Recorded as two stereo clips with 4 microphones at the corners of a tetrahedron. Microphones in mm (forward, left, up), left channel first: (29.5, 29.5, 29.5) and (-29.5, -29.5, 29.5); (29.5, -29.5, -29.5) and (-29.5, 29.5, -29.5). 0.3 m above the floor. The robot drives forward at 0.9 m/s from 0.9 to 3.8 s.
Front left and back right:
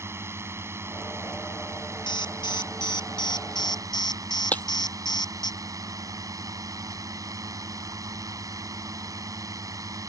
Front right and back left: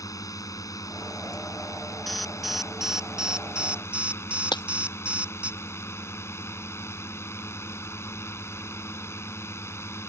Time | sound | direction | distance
0.0 | a drone | 80° right | ?
2.1 | an alarm | 45° left | ?
4.5 | breaking glass | 25° right | ?